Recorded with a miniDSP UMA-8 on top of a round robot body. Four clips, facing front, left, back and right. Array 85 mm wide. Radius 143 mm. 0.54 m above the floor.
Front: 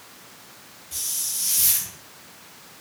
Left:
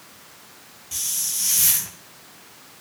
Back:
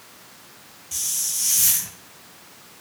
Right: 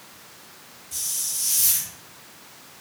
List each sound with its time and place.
0.9 s a hiss: 110° left, 0.6 m